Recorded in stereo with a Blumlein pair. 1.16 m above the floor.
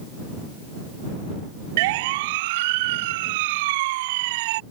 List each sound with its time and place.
1.8 s a siren: 50° right